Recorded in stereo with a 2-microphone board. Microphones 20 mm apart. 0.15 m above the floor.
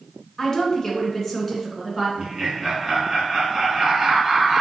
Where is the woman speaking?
25° left (ahead or behind), 1.3 m; by 2.1 s 5° left (ahead or behind), 1.7 m.